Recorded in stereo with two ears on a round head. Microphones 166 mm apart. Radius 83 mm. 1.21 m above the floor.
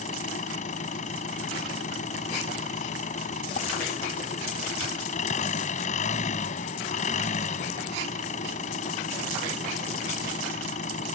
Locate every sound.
0.0 s an engine running: 40° left (ahead or behind)